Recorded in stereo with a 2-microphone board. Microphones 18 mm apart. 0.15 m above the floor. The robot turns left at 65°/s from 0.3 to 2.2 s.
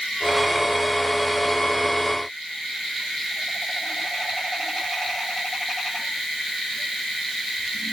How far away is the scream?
I don't hear a scream.